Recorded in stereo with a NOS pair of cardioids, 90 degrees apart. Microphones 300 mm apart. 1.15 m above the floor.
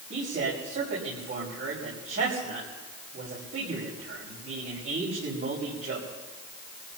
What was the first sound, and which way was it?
A man speaking, 50° right.